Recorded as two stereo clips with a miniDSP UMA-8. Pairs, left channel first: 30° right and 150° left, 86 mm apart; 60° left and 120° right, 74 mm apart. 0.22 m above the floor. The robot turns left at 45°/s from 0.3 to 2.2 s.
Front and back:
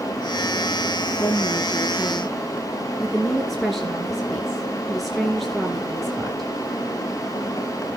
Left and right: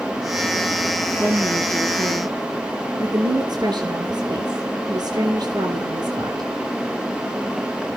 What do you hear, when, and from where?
1.2 s a woman speaking: 75° right, 2.5 m; by 6.5 s 120° right, 2.5 m